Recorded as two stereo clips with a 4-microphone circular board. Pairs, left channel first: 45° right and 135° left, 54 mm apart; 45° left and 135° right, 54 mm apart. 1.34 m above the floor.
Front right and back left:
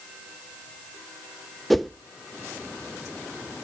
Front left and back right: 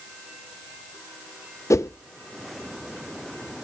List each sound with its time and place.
1.7 s a whoosh: 45° left, 0.5 m